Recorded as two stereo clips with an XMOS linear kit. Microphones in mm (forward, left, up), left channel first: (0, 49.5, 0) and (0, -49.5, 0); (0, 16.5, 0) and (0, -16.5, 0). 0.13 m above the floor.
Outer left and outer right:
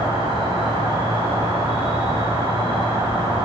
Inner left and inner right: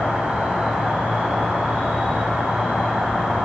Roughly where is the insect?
Right.